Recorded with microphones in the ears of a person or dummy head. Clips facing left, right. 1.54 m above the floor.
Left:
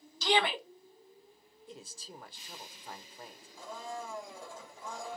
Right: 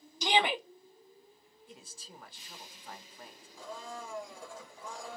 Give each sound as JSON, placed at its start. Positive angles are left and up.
{"t": 0.2, "sound": "a shout", "side_deg": -15, "distance_m": 0.7}
{"t": 1.7, "sound": "a man speaking", "side_deg": 35, "distance_m": 0.5}
{"t": 3.6, "sound": "a blender", "side_deg": 25, "distance_m": 1.8}